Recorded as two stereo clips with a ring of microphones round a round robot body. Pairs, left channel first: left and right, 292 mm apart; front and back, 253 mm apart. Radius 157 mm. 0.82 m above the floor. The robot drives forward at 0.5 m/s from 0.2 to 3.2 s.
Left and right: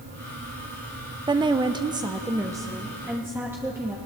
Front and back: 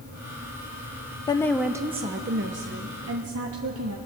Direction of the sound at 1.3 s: 40° right.